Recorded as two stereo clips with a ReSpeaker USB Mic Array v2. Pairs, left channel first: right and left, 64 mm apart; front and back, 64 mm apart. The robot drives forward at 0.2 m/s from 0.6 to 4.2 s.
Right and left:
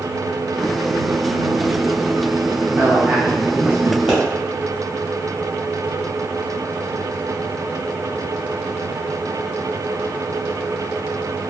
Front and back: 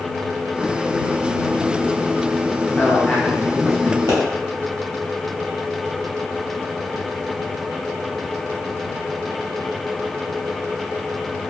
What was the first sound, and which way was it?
A man speaking, 60° left.